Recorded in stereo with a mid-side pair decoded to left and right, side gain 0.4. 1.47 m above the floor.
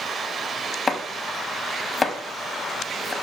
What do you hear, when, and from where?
0.9 s chopping: 35° left, 0.6 m